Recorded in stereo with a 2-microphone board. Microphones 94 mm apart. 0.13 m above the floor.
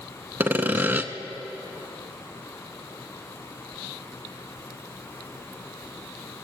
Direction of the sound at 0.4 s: 20° right (ahead or behind).